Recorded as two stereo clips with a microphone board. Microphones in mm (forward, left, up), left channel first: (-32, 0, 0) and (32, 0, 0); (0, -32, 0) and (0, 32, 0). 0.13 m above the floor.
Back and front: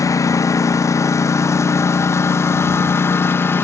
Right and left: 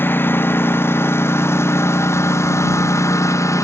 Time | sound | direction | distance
0.0 | a lawn mower | 145° right | ?